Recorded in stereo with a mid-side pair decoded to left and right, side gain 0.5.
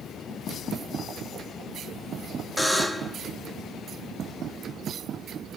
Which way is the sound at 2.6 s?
5° left.